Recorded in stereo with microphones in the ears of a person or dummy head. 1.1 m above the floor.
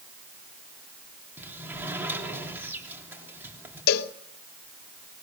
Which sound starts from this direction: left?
A cowbell, at 3.9 s.